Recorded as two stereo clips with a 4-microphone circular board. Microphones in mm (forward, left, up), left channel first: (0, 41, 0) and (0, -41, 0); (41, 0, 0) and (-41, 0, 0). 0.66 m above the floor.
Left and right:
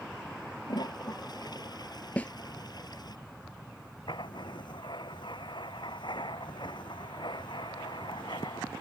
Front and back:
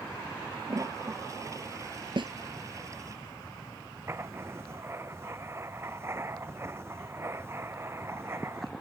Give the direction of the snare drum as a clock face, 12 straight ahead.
7 o'clock.